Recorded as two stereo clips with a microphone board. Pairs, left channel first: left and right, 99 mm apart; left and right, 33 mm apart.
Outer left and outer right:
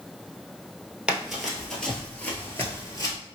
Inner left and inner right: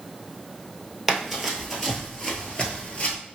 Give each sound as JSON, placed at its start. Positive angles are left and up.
{"t": 1.1, "sound": "running footsteps", "side_deg": -10, "distance_m": 1.2}